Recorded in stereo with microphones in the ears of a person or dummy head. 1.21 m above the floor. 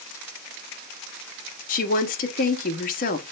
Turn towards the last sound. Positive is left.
turn(degrees=35)  # may be behind; listen again after turning